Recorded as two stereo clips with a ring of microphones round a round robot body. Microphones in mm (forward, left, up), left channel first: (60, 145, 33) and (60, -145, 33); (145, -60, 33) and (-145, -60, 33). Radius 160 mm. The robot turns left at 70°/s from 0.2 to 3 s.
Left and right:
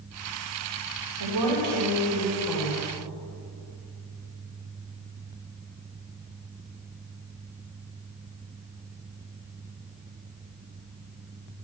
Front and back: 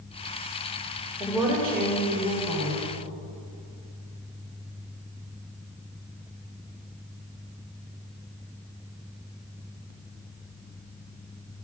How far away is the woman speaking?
About 3.5 m.